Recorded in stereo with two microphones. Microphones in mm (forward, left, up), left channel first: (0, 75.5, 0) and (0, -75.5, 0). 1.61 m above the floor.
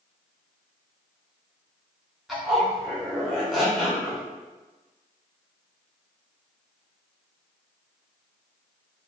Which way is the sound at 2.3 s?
Centre (ahead or behind).